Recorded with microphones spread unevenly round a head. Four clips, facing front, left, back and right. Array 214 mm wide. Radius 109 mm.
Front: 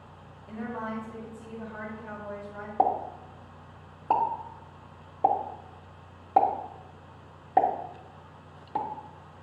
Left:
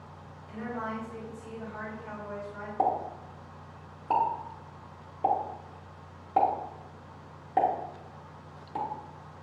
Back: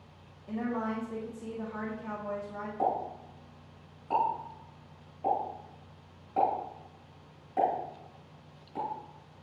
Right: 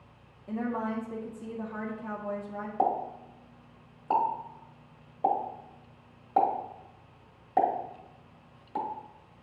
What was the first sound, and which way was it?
A woman speaking, 105° right.